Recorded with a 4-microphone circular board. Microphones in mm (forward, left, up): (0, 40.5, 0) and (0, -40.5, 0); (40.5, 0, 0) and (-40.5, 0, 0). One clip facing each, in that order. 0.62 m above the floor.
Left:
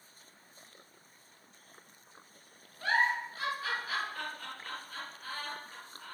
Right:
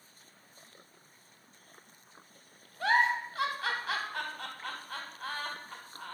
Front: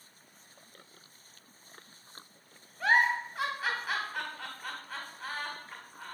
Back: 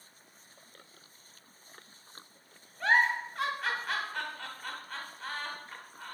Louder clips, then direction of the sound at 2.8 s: Right 3 dB, even; 85° right.